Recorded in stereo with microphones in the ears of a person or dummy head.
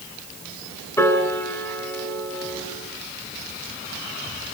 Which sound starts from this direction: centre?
A piano, at 1.0 s.